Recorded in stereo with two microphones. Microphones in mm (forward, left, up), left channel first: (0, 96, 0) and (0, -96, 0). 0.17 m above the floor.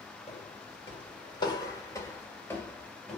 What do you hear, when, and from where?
0.3 s footsteps: 35° left (ahead or behind), 3 m; by 3.2 s 5° left (ahead or behind), 3 m